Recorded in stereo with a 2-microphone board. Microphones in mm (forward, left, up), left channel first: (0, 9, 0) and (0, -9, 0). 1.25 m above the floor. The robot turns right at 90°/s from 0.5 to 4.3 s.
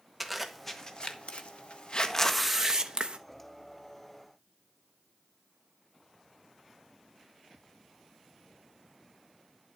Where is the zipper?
Centre (ahead or behind), 1.1 m; by 3.1 s 50° right (ahead or behind), 1.1 m.